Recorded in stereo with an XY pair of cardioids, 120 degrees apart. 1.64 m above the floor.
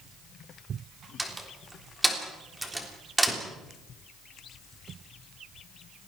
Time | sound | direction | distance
1.2 | a door slam | 10° right | 3.5 m